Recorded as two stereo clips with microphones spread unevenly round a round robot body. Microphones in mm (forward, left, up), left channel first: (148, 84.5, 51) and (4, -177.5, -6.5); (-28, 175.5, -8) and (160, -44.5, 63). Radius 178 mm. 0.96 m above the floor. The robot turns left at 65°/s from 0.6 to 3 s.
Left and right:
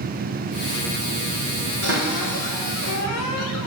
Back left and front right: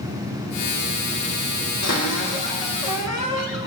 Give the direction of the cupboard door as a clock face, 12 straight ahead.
6 o'clock.